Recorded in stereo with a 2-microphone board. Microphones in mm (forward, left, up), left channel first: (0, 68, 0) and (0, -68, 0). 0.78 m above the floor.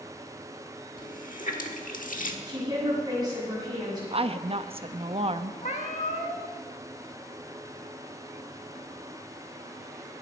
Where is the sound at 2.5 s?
35° right (ahead or behind), 6.5 m.